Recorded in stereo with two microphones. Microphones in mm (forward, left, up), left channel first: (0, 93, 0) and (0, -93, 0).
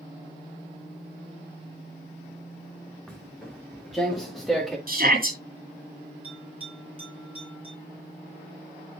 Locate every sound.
3.1 s footsteps: centre (ahead or behind), 3 m
4.9 s a shout: 50° right (ahead or behind), 5 m
6.2 s a bell: 30° right (ahead or behind), 7 m